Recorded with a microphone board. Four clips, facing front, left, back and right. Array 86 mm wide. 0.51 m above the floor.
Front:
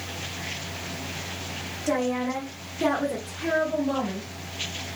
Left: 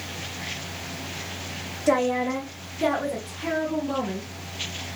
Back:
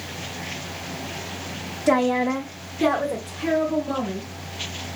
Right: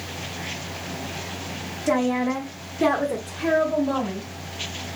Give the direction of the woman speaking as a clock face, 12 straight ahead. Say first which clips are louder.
Even, back 6 dB; 7 o'clock.